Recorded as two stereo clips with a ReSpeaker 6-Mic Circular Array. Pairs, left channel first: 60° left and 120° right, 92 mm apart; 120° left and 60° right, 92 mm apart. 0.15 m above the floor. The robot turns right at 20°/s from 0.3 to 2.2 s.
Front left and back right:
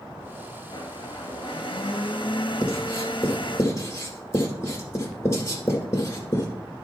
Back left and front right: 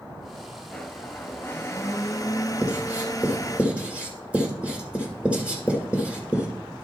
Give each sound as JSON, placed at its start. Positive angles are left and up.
{"t": 0.7, "sound": "a blender", "azimuth_deg": 40, "distance_m": 0.9}
{"t": 2.6, "sound": "writing", "azimuth_deg": 15, "distance_m": 1.8}